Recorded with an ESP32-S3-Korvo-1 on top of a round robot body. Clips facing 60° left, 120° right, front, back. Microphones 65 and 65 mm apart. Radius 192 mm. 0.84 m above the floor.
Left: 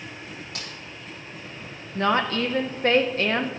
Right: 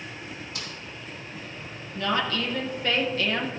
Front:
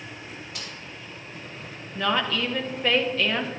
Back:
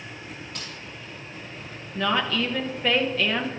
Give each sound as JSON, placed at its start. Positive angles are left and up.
{"t": 0.6, "sound": "a snare drum", "azimuth_deg": 85, "distance_m": 2.5}
{"t": 1.9, "sound": "a woman speaking", "azimuth_deg": 90, "distance_m": 1.0}